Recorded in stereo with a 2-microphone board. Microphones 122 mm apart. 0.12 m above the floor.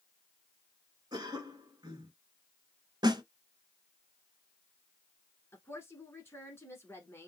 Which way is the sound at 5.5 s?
20° left (ahead or behind).